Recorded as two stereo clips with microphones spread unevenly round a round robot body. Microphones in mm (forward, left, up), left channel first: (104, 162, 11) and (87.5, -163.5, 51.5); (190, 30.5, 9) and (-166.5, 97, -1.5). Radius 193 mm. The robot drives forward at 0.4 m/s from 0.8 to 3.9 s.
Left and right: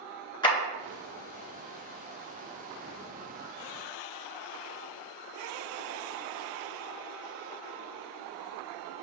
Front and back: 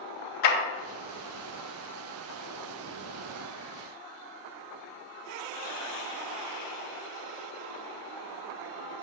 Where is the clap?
10° left, 4 m.